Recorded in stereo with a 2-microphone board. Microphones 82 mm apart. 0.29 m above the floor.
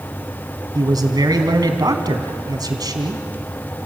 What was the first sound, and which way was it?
A man speaking, 55° right (ahead or behind).